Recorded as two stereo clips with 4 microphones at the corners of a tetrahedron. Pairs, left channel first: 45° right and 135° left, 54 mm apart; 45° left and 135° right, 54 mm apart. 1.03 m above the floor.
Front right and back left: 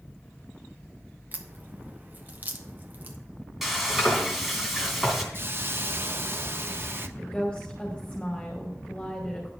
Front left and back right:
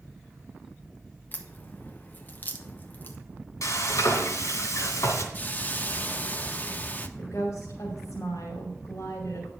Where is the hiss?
95° left, 0.7 m.